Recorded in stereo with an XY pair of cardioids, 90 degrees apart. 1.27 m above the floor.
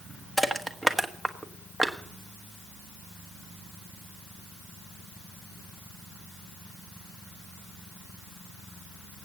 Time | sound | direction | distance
0.4 | crushing | 5° right | 1.4 m